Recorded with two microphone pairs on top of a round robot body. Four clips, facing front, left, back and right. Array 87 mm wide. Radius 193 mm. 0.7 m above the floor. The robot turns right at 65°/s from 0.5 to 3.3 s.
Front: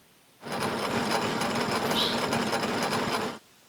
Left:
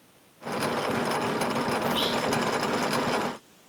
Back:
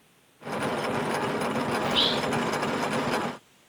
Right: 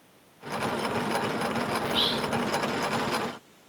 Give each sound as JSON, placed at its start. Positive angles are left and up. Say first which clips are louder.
{"t": 1.8, "sound": "whispering", "louder": "left 2 dB, back 1 dB", "azimuth_deg": 180, "distance_m": 1.1}